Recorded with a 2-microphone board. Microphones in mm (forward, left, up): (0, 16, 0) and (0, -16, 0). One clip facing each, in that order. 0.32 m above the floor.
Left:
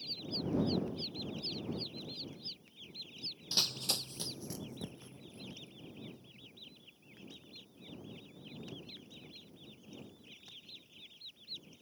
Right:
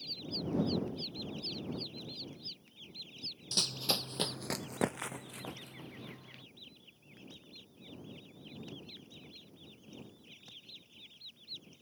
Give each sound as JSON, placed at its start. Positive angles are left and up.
{"t": 3.5, "sound": "running footsteps", "side_deg": 15}